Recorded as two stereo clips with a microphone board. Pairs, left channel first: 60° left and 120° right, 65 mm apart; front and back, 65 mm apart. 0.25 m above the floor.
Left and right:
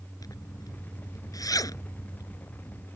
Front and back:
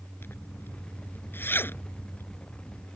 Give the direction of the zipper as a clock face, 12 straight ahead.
10 o'clock.